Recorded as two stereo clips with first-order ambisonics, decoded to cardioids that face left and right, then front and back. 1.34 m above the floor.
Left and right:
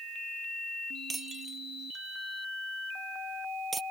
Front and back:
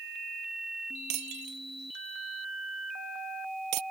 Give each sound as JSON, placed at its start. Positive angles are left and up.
{"t": 1.1, "sound": "breaking glass", "azimuth_deg": -165}